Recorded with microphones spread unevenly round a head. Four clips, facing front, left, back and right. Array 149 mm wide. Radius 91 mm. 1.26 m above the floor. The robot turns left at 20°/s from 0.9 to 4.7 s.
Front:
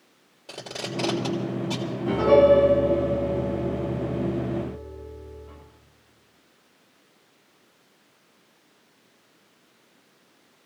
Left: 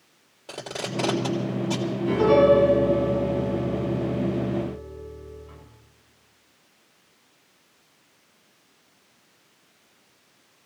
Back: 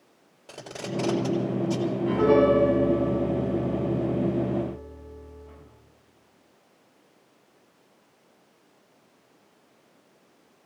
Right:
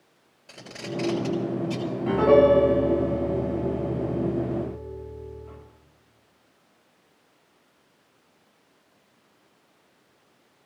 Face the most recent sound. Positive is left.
turn(degrees=-120)